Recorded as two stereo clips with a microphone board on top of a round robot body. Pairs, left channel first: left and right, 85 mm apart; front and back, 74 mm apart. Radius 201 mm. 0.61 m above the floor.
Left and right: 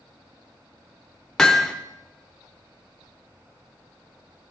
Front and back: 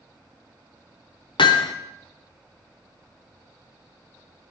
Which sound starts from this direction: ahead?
Hammering, at 1.4 s.